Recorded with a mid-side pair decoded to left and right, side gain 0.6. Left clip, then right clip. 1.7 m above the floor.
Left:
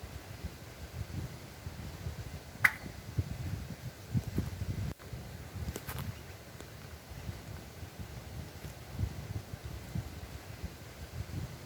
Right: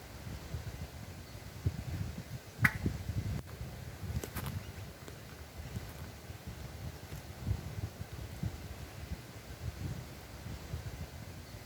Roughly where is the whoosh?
Ahead.